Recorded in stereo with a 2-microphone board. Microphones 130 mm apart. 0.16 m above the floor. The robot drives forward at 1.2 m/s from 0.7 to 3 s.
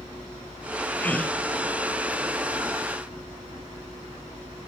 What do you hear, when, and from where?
1.0 s a gasp: 10° left (ahead or behind), 1.0 m